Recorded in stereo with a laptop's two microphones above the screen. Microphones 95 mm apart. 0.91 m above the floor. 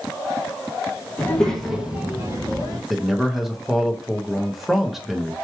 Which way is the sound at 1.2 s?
25° left (ahead or behind).